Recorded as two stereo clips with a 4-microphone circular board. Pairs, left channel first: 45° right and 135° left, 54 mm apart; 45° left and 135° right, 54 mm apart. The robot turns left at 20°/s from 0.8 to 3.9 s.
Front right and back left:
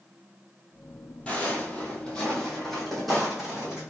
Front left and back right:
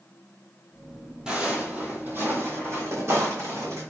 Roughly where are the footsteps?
Right.